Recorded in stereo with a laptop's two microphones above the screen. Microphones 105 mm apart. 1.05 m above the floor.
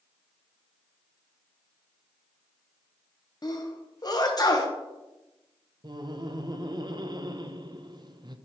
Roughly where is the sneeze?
Left.